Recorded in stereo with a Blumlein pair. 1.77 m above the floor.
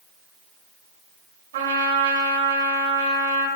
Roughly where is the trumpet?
Ahead right.